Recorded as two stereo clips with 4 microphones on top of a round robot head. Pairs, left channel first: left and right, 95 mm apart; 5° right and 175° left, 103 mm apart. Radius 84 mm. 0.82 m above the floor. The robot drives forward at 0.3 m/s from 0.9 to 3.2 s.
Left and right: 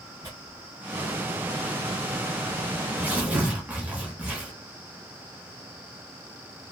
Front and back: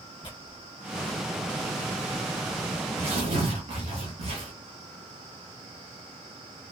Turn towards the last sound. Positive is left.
turn(degrees=-160)